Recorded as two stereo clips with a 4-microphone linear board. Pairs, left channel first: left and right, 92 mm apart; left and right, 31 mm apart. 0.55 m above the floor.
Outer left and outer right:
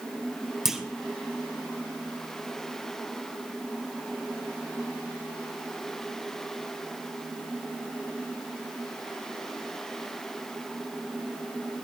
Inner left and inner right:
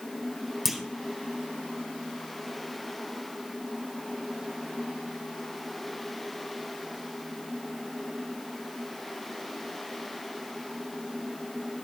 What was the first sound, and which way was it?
A clunk, 5° right (ahead or behind).